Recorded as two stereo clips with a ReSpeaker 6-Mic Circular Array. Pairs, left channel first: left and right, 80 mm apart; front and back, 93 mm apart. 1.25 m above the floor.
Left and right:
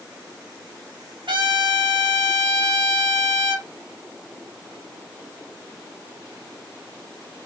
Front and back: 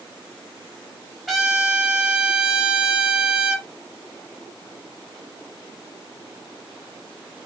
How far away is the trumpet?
About 0.8 m.